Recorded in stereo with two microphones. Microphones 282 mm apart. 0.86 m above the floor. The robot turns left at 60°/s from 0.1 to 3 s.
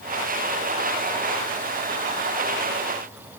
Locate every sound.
Only background noise.